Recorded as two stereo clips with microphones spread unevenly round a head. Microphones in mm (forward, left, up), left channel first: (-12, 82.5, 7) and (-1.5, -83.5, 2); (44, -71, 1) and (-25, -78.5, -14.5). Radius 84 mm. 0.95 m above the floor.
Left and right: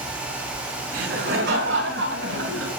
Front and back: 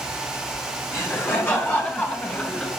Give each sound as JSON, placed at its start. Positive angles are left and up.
{"t": 0.9, "sound": "laughter", "azimuth_deg": -50, "distance_m": 6.5}